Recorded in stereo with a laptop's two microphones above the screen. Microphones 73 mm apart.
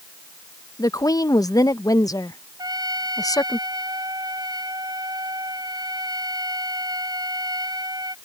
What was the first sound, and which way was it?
A woman speaking, 65° left (ahead or behind).